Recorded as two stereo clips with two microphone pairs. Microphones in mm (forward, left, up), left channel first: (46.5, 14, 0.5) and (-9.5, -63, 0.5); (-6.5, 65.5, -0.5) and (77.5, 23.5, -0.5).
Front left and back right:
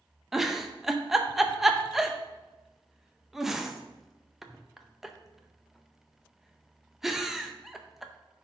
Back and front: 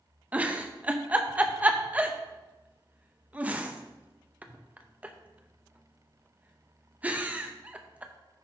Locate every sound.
0.3 s a giggle: 50° right, 0.7 m